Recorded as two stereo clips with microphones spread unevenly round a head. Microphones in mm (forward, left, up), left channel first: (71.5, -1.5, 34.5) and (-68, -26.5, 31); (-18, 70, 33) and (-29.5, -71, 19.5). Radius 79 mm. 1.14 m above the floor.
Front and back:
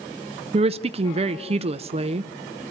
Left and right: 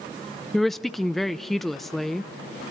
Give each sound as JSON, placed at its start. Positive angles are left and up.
{"t": 0.5, "sound": "a woman speaking", "azimuth_deg": 180, "distance_m": 0.5}